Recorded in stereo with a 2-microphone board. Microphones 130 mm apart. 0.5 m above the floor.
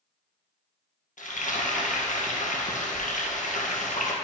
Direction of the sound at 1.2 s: 80° left.